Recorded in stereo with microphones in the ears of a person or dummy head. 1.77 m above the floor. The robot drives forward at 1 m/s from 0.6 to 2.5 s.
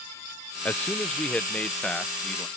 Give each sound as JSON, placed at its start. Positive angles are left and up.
{"t": 0.7, "sound": "a man speaking", "side_deg": 5}